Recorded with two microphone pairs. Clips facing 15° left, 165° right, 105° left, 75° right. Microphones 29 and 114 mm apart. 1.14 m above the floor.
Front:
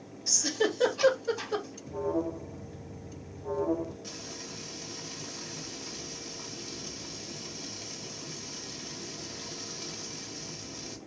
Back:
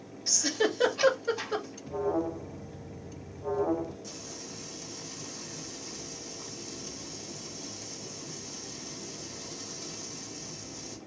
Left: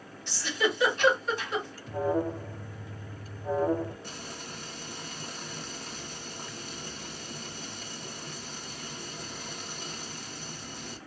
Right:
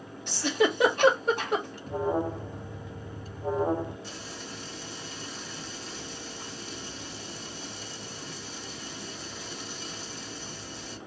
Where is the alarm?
115° right, 0.8 m.